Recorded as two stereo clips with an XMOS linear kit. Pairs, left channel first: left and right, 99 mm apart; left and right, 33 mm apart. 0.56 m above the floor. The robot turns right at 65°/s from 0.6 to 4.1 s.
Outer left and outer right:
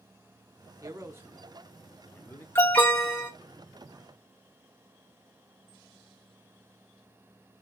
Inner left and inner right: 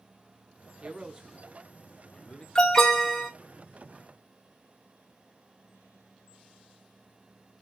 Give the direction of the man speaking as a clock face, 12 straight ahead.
2 o'clock.